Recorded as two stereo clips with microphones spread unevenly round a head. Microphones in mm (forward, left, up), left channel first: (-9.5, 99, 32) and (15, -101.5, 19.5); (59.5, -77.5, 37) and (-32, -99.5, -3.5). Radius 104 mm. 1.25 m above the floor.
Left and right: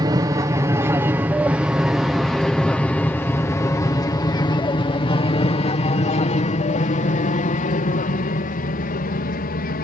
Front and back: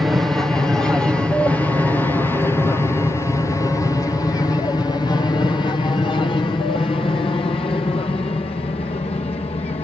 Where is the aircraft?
125° right; by 9.8 s 60° left.